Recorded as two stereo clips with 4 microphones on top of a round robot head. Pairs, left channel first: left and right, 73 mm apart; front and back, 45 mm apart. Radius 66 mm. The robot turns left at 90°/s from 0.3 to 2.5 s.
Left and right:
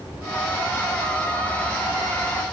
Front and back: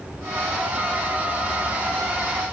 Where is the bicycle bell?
No bicycle bell in this recording.